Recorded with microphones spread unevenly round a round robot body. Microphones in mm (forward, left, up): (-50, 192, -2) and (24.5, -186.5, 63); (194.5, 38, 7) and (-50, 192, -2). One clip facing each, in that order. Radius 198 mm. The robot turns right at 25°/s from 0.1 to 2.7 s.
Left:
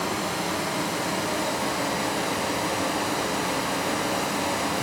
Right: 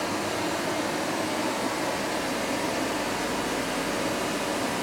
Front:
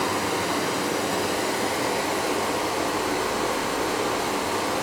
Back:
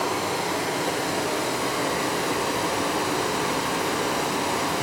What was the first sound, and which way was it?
Running water, 30° left.